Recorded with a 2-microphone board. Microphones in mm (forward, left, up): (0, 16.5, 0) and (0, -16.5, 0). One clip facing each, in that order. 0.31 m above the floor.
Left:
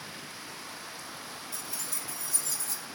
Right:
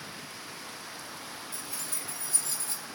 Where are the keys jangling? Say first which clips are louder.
Even; 45° right (ahead or behind), 4 m.